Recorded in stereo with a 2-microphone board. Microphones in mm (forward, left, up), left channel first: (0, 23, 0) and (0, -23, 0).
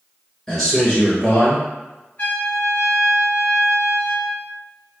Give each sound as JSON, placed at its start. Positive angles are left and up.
{"t": 0.5, "sound": "a man speaking", "side_deg": 0, "distance_m": 1.5}
{"t": 2.2, "sound": "a trumpet", "side_deg": 35, "distance_m": 1.0}